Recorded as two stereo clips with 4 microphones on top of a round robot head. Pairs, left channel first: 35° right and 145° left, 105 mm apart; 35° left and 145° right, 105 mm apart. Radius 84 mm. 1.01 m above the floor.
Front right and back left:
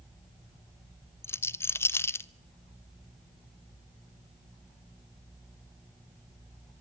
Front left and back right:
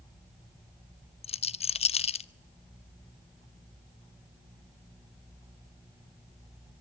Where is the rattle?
30° left, 0.7 m.